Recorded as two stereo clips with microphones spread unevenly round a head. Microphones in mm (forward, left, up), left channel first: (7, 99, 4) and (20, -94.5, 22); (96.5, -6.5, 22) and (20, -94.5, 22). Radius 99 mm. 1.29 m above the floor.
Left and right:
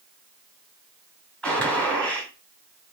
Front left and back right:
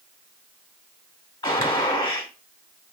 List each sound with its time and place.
1.4 s a gunshot: 5° left, 1.8 m